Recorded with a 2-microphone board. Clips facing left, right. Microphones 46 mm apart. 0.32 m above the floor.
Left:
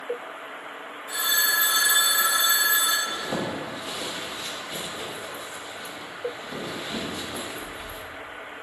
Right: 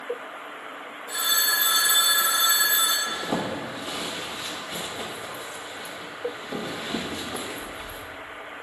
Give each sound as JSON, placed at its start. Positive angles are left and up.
{"t": 1.1, "sound": "a phone ringing", "side_deg": 35, "distance_m": 2.0}
{"t": 3.1, "sound": "a zipper", "side_deg": -15, "distance_m": 1.4}